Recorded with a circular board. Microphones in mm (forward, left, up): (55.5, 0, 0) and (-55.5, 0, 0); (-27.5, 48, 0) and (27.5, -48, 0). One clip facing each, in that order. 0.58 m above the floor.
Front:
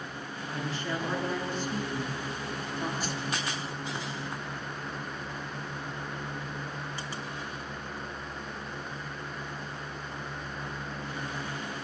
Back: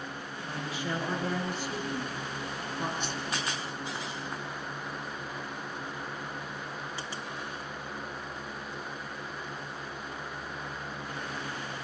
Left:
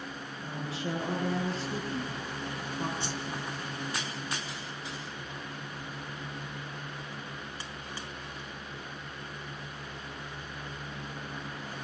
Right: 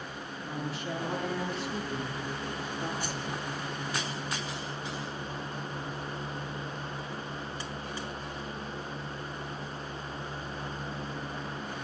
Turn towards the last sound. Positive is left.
turn(degrees=55)